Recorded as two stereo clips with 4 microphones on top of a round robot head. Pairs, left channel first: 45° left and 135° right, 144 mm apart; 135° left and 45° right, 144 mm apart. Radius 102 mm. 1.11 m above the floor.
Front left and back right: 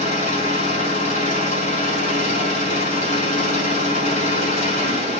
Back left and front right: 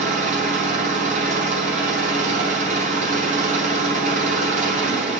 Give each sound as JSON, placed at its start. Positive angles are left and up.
{"t": 0.0, "sound": "an engine running", "azimuth_deg": 0, "distance_m": 4.5}